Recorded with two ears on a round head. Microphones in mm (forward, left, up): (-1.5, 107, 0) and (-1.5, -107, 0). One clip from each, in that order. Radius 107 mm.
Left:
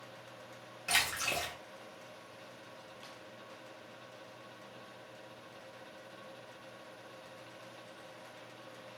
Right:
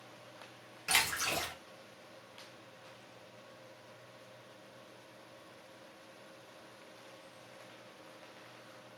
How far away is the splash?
About 0.7 m.